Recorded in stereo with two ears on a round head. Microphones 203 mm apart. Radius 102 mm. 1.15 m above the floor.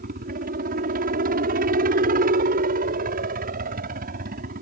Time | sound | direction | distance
0.0 | a helicopter | 40° right (ahead or behind) | ?